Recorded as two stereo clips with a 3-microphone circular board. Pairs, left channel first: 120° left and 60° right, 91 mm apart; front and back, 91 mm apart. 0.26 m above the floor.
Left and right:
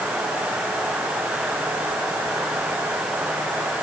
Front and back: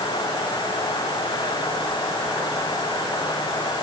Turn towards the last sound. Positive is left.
No sound to turn to.